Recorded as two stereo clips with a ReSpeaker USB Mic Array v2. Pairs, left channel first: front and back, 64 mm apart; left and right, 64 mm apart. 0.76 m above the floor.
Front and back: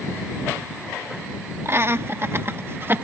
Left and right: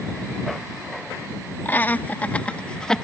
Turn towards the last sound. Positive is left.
turn(degrees=165)